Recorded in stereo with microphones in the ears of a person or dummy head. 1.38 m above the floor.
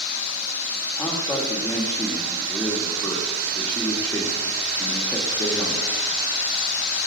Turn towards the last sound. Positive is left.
turn(degrees=5)  # may be behind; listen again after turning